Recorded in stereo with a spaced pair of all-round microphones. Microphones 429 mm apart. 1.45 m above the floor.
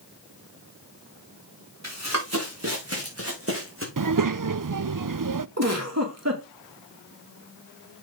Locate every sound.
1.8 s running footsteps: 40° right (ahead or behind), 5 m; by 3.9 s 30° right (ahead or behind), 4 m
4.0 s a child speaking: 50° right (ahead or behind), 0.5 m
5.6 s a giggle: 35° right (ahead or behind), 2.5 m